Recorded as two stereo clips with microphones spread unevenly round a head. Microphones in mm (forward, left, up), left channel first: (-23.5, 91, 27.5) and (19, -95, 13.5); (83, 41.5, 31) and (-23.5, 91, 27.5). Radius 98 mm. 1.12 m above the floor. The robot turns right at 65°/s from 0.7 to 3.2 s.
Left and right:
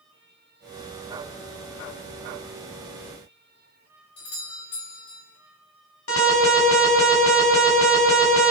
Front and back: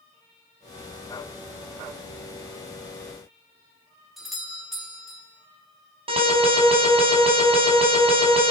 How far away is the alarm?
About 6.5 m.